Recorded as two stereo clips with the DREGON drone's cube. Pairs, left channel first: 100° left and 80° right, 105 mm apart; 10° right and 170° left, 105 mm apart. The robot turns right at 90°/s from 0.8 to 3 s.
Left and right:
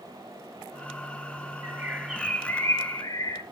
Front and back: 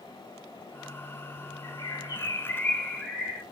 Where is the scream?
I don't hear a scream.